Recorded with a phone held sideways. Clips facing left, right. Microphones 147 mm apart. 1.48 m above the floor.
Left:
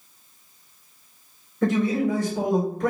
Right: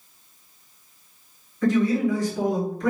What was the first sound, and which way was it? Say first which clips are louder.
A man speaking: right 1 dB; 60° left (ahead or behind).